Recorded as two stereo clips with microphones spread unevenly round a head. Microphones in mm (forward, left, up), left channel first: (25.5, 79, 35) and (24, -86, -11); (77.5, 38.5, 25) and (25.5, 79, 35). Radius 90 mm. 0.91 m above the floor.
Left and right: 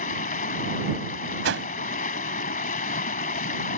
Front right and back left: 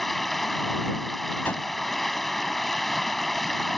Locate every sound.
0.0 s running water: 50° left
1.4 s a whoosh: 120° right